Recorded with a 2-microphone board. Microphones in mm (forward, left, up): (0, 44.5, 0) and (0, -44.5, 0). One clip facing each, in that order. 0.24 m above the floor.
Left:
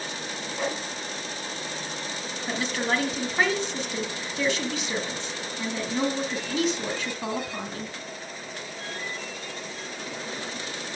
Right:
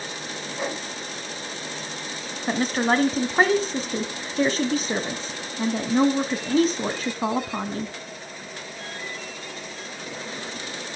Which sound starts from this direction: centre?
A whoosh, at 0.6 s.